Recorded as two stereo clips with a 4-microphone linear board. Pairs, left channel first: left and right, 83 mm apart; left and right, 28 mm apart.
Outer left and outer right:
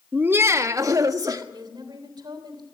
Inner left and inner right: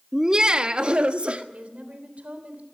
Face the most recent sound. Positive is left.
turn(degrees=-60)  # may be behind; listen again after turning